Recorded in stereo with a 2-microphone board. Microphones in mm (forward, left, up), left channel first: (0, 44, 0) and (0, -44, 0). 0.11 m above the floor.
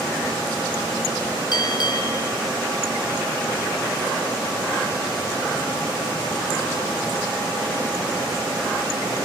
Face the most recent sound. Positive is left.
turn(degrees=55)  # may be behind; listen again after turning